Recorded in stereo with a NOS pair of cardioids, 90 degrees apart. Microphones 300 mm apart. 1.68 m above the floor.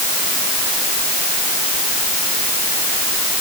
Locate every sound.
Only background noise.